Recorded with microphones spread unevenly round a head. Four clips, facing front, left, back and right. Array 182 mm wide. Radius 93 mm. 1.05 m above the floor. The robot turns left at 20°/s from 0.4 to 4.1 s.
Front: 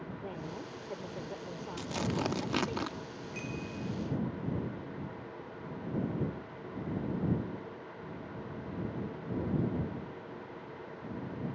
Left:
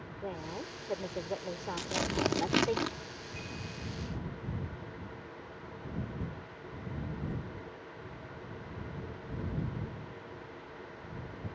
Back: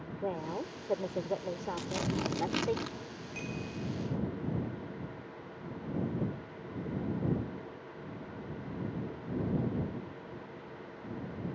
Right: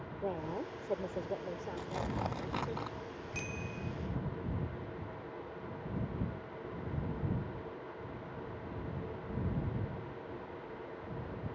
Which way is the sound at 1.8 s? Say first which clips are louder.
Left 6 dB, front 3 dB; 85° left.